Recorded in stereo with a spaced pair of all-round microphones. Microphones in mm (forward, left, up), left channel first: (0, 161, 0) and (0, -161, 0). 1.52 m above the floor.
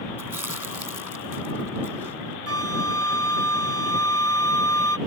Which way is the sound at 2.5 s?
50° right (ahead or behind).